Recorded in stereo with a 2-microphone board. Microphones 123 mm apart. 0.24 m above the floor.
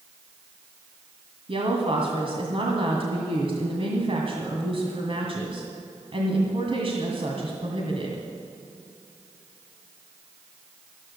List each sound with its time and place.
1.5 s a woman speaking: 50° right (ahead or behind), 2 m